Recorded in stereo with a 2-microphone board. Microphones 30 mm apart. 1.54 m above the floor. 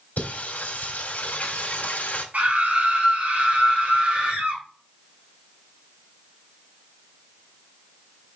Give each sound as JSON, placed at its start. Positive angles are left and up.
{"t": 0.2, "sound": "singing", "side_deg": 60, "distance_m": 3.0}
{"t": 2.3, "sound": "a scream", "side_deg": -70, "distance_m": 4.0}